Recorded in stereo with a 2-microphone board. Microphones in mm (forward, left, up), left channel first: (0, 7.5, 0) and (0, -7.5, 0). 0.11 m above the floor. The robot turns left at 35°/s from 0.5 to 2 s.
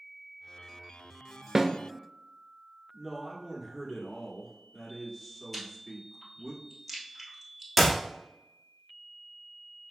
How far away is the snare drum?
About 0.5 m.